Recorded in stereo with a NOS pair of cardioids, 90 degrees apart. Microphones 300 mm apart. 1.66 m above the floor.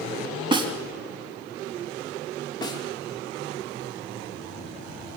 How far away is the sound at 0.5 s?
About 4.5 m.